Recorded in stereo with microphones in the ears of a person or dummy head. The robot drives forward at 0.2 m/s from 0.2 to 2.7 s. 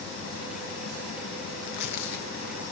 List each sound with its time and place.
1.6 s tearing paper: 65° left (ahead or behind), 1.0 m; by 2.2 s 60° left (ahead or behind), 1.0 m